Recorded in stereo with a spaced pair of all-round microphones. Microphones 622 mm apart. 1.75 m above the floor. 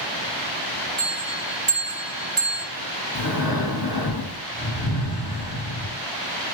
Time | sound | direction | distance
1.0 | a bell | 50° right (ahead or behind) | 2.5 m
3.1 | breathing | 35° left (ahead or behind) | 3.5 m